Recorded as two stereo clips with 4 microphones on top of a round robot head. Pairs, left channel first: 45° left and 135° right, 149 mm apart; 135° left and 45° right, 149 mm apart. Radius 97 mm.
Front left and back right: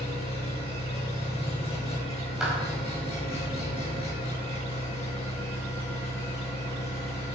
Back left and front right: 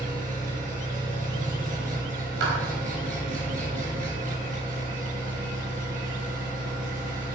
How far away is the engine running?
About 5.5 m.